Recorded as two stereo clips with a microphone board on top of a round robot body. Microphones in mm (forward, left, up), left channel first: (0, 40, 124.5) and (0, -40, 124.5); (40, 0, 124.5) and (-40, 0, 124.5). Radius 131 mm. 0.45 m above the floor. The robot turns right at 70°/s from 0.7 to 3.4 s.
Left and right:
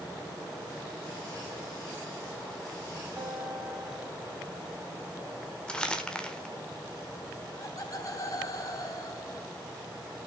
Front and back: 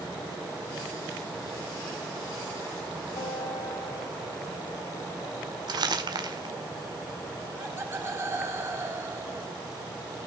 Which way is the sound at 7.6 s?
125° left.